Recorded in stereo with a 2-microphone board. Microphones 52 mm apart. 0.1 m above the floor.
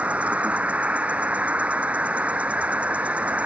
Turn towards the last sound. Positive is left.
turn(degrees=-25)  # may be behind; listen again after turning